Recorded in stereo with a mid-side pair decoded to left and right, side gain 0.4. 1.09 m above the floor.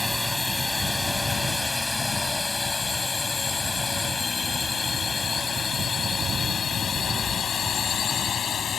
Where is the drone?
15° left; by 8.8 s 60° left.